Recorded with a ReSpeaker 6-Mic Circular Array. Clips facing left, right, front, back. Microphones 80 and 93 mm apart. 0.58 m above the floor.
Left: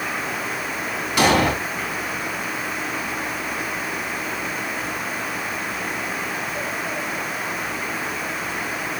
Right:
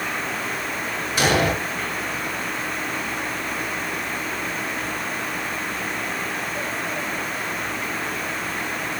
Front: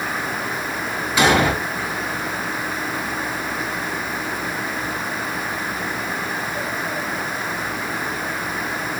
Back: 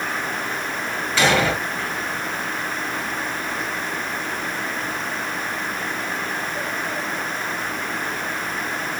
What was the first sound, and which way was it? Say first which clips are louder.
An explosion: left 3 dB, front 2 dB; 75° left.